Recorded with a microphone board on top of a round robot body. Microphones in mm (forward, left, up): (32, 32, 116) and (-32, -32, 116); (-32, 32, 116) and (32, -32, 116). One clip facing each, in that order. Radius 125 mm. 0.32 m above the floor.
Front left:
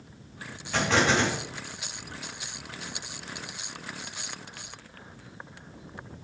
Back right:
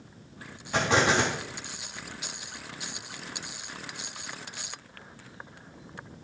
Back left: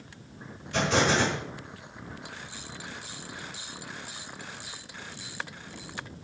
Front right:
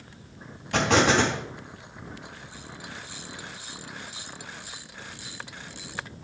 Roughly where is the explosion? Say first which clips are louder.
Even, front right 4 dB; ahead right.